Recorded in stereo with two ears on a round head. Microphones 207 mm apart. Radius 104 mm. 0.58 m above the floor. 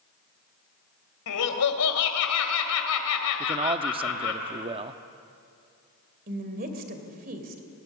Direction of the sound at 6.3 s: 40° right (ahead or behind).